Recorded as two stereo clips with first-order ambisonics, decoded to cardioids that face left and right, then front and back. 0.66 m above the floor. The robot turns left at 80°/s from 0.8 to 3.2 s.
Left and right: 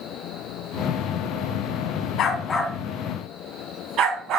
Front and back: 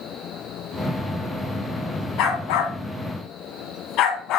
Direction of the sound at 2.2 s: 40° left.